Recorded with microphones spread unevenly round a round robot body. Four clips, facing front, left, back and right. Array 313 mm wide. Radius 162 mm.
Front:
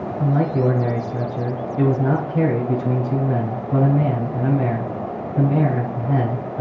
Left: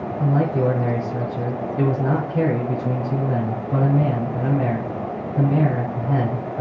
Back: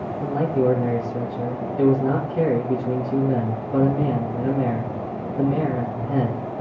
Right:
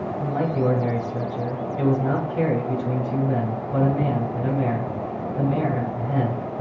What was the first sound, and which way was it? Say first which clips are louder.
A man speaking: left 4 dB, front 1 dB; 35° left.